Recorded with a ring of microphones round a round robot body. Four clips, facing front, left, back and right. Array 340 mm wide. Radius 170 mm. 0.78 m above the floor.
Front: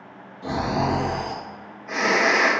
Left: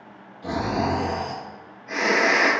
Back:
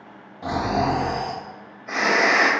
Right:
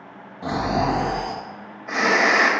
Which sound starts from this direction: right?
Snoring, at 0.4 s.